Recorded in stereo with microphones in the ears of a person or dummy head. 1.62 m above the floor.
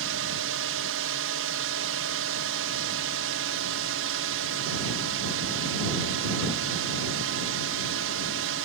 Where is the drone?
60° right (ahead or behind).